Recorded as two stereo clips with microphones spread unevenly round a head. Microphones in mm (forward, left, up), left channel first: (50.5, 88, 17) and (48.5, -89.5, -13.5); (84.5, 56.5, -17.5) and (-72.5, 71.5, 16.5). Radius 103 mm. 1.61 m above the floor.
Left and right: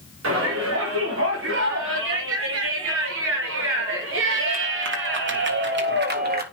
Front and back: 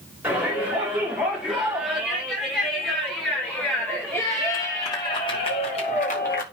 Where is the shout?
100° right, 5 m; by 6.4 s 55° right, 1.8 m.